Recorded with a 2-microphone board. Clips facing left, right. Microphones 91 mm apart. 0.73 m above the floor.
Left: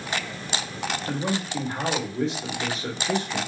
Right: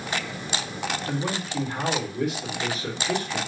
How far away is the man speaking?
About 1.4 m.